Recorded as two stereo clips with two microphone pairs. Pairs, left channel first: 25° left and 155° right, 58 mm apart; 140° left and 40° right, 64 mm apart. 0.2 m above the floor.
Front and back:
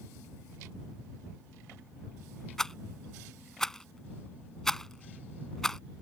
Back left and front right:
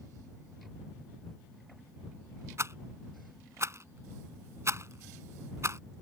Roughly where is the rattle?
Ahead right.